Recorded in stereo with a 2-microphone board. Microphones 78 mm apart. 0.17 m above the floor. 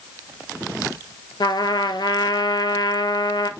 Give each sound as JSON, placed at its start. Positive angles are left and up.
{"t": 1.4, "sound": "a trumpet", "side_deg": 70, "distance_m": 0.6}